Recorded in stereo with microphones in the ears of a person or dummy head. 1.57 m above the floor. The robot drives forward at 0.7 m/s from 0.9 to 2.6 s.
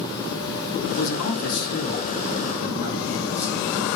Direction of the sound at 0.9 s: 85° left.